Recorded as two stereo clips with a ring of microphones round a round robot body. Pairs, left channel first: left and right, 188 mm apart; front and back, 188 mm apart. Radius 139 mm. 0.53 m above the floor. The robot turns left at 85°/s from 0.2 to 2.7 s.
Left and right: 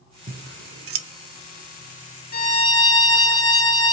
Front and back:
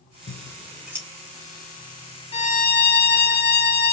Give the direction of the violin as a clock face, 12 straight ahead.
10 o'clock.